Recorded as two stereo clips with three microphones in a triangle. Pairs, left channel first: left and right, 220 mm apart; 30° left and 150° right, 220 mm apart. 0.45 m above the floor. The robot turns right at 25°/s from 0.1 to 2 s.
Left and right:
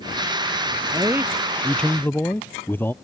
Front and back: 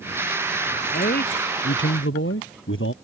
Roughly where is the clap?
No clap in this recording.